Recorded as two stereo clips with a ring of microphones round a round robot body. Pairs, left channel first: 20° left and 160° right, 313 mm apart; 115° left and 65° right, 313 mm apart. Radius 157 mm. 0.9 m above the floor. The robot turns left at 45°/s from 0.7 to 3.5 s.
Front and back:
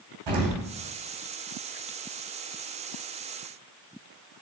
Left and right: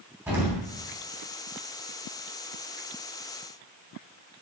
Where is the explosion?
150° right, 2.5 m.